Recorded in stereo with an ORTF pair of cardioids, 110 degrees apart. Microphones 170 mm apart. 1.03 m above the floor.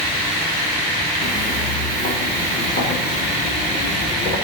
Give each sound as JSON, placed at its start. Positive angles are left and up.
{"t": 1.2, "sound": "footsteps", "azimuth_deg": 45, "distance_m": 3.5}